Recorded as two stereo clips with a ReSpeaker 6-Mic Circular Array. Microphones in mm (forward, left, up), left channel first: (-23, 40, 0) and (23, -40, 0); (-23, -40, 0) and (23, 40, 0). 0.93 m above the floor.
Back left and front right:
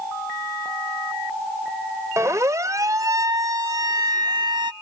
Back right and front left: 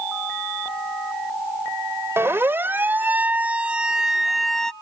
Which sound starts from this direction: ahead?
A siren, at 2.2 s.